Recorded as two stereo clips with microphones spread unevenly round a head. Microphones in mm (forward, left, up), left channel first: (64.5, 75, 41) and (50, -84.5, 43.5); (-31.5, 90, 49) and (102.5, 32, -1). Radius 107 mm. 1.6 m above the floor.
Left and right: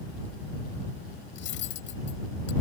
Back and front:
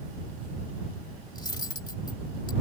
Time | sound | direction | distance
1.3 | cutlery clinking | 100° left | ?